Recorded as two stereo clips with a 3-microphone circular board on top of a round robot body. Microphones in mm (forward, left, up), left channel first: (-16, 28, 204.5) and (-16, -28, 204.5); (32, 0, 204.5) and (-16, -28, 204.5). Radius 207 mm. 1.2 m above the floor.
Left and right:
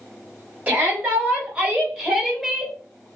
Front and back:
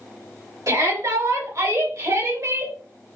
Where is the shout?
150° right, 3.5 m; by 2.8 s straight behind, 2 m.